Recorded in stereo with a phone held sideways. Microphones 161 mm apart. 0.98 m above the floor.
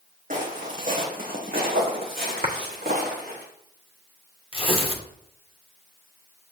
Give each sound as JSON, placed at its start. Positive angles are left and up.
{"t": 0.3, "sound": "footsteps", "side_deg": -55, "distance_m": 2.5}
{"t": 2.4, "sound": "a clap", "side_deg": -60, "distance_m": 1.5}
{"t": 4.5, "sound": "tearing paper", "side_deg": 35, "distance_m": 1.0}